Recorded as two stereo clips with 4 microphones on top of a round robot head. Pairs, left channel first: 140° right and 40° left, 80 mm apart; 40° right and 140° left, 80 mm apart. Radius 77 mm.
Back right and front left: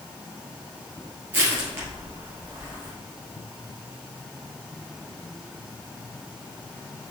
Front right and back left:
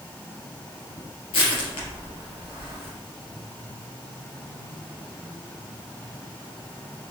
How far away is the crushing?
About 3 m.